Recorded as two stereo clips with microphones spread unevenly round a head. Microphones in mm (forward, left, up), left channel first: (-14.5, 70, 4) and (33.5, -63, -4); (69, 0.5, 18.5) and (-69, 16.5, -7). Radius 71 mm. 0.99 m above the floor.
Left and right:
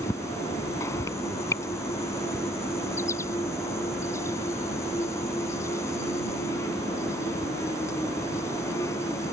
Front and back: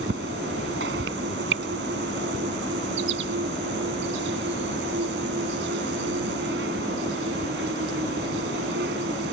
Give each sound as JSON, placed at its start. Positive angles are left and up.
{"t": 0.0, "sound": "an insect", "azimuth_deg": 180}